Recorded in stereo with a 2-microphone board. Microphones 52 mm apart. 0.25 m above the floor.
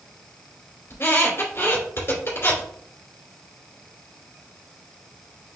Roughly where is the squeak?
Left.